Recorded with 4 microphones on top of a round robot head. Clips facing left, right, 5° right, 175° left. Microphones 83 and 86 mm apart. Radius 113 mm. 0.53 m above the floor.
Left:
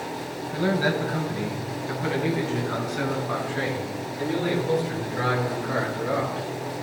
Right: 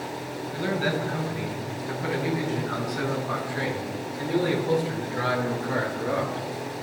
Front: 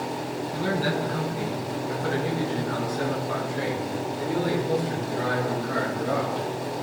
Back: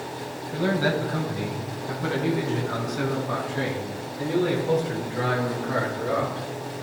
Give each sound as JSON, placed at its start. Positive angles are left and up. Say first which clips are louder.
{"t": 0.5, "sound": "a man speaking", "louder": "left 3 dB, back 3 dB", "azimuth_deg": 155, "distance_m": 3.0}